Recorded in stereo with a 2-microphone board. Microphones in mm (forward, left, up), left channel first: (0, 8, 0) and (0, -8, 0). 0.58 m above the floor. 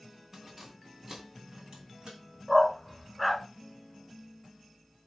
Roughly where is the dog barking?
Centre.